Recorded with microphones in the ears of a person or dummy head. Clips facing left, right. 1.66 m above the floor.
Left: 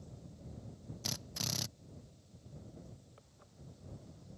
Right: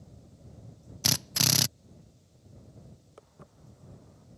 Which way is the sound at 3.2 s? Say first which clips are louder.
Right 7 dB; 65° right (ahead or behind).